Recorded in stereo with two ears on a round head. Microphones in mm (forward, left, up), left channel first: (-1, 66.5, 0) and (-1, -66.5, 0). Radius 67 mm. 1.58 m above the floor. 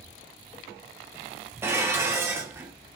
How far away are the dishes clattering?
About 0.7 m.